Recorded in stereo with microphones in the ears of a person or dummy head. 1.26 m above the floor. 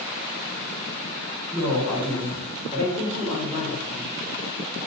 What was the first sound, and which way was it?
A woman speaking, 30° right (ahead or behind).